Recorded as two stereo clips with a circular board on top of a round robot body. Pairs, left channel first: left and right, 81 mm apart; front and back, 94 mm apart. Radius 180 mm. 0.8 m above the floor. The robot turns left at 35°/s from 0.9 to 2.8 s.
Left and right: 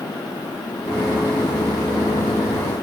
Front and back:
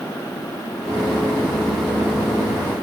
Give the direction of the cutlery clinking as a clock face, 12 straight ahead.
I don't hear cutlery clinking.